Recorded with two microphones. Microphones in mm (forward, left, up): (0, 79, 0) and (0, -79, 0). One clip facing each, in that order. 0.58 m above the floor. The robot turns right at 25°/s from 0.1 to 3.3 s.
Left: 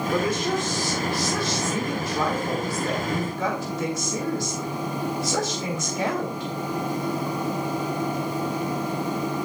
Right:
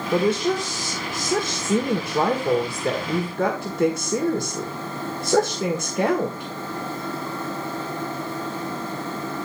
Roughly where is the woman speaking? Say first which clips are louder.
Right 5 dB; behind right.